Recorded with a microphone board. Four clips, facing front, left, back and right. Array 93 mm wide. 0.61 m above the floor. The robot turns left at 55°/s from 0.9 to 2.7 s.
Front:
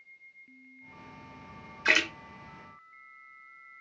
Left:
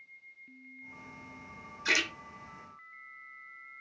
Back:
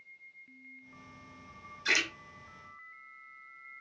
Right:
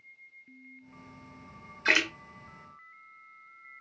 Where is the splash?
40° right, 0.6 m; by 2.1 s 50° right, 0.6 m.